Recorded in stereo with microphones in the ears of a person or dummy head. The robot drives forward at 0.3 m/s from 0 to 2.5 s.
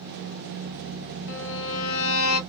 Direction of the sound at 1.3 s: 65° left (ahead or behind).